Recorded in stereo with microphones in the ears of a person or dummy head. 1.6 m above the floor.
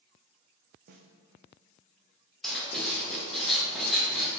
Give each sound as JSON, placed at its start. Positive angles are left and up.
{"t": 0.9, "sound": "a snare drum", "side_deg": -50, "distance_m": 0.8}
{"t": 2.4, "sound": "writing", "side_deg": 0, "distance_m": 1.8}